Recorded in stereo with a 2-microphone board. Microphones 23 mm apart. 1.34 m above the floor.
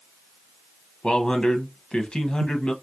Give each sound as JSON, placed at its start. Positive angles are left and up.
{"t": 1.0, "sound": "a man speaking", "side_deg": 45, "distance_m": 0.9}